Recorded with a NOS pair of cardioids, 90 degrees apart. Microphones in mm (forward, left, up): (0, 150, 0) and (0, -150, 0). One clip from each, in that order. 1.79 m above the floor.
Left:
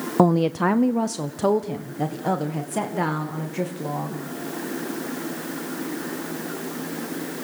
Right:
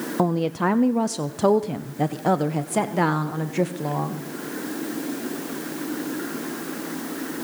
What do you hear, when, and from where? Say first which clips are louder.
0.2 s a woman speaking: left 4 dB; 25° left, 0.6 m; by 4.2 s 30° right, 2.5 m